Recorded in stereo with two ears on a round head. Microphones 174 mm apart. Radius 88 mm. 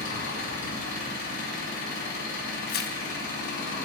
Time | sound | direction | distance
0.0 | an engine running | 70° left (ahead or behind) | 4.5 m
2.7 | tearing paper | 55° left (ahead or behind) | 1.0 m